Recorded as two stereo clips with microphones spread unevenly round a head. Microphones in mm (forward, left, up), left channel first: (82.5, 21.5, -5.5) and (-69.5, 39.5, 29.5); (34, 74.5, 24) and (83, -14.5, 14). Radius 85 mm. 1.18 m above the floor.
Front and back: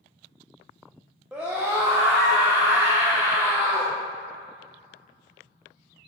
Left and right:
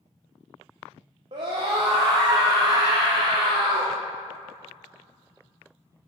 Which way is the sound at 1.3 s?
95° right.